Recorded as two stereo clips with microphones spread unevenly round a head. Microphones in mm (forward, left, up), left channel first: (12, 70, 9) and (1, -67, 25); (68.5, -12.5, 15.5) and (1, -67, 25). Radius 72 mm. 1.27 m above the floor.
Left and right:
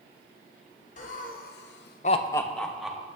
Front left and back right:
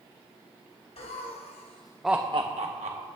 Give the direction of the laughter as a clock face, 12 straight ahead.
10 o'clock.